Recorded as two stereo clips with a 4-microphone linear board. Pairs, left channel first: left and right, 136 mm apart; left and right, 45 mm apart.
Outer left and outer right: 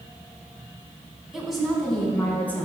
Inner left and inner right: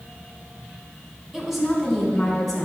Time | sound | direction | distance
1.3 | a woman speaking | 5° right (ahead or behind) | 3 m